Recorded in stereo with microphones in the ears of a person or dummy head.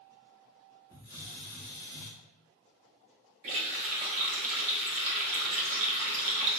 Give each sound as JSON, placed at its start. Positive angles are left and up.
{"t": 0.9, "sound": "a hiss", "side_deg": -20, "distance_m": 1.7}
{"t": 3.4, "sound": "a running tap", "side_deg": -35, "distance_m": 0.6}